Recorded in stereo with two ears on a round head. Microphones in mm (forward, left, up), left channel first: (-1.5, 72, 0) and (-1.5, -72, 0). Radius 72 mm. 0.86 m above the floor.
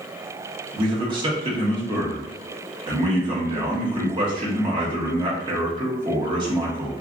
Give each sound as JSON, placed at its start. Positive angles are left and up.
{"t": 0.7, "sound": "a man speaking", "side_deg": -30, "distance_m": 1.2}